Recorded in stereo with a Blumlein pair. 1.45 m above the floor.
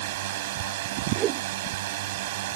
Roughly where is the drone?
Ahead right.